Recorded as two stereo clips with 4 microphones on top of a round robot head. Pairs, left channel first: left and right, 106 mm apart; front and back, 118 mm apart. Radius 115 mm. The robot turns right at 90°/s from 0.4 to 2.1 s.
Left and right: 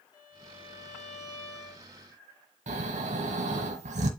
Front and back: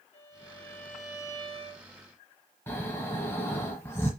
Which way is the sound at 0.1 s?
40° left.